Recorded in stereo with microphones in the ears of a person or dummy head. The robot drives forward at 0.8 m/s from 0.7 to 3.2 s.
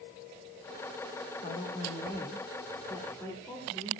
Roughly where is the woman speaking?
Left.